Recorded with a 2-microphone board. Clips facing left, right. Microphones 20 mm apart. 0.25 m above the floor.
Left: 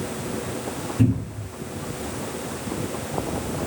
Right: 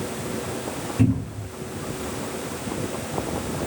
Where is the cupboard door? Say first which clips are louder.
Even; 40° right (ahead or behind), 1.6 m.